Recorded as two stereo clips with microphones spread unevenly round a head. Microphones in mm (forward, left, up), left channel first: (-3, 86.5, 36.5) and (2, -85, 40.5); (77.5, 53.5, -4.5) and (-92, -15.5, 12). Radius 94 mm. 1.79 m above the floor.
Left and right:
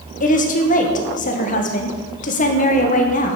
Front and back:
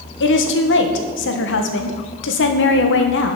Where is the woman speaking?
45° left, 1.9 m.